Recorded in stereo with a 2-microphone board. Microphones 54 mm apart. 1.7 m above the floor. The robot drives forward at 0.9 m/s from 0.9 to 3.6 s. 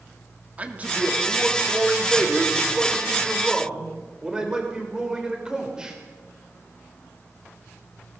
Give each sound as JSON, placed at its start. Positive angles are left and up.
{"t": 0.6, "sound": "a man speaking", "side_deg": -25, "distance_m": 3.0}